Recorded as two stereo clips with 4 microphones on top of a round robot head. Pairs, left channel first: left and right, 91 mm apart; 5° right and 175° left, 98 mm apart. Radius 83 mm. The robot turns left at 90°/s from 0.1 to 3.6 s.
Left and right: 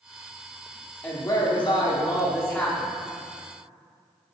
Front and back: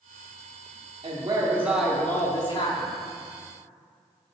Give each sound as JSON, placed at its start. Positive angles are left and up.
{"t": 1.0, "sound": "a woman speaking", "azimuth_deg": 160, "distance_m": 1.8}